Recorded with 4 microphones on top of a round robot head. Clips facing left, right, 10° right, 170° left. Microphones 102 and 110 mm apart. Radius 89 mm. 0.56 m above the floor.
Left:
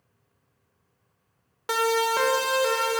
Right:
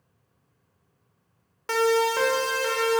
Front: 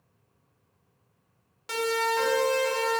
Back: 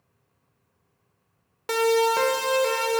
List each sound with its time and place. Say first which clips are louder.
1.7 s a siren: right 2 dB, back 7 dB; 165° left, 3 m